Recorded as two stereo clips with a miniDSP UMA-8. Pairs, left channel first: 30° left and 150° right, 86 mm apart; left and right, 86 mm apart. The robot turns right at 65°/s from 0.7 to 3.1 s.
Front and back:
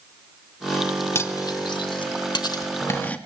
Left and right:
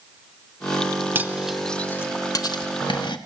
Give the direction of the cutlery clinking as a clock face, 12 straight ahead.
1 o'clock.